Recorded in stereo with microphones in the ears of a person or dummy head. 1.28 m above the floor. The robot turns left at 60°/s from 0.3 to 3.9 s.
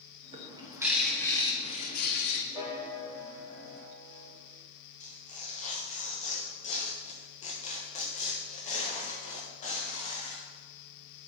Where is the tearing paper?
35° left (ahead or behind), 1.3 m.